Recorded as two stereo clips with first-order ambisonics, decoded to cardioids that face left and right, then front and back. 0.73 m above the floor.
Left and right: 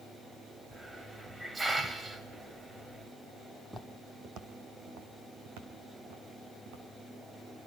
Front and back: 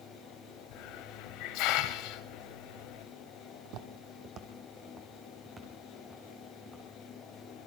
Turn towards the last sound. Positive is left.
turn(degrees=-95)